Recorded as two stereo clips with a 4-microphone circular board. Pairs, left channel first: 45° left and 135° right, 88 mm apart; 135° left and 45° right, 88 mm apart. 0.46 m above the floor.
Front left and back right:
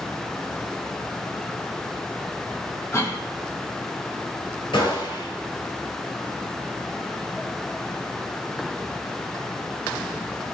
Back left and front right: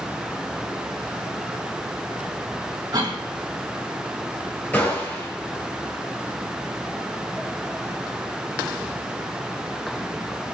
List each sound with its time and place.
2.9 s a cough: 10° right, 2.5 m
4.7 s a gunshot: 65° left, 3 m